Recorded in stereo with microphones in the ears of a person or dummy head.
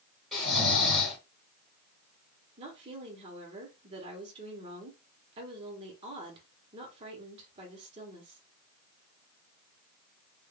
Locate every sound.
0.3 s snoring: centre (ahead or behind), 2.5 m
2.6 s a woman speaking: 30° right (ahead or behind), 1.2 m